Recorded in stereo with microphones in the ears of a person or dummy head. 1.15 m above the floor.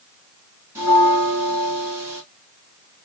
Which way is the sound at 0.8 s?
15° right (ahead or behind).